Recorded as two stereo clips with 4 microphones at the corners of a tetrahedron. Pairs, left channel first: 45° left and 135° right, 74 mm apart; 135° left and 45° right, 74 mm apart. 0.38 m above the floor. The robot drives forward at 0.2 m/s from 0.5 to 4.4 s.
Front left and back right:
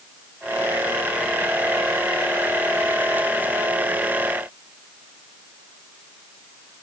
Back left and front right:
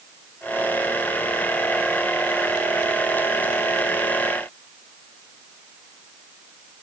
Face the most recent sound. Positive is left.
No sound to turn to.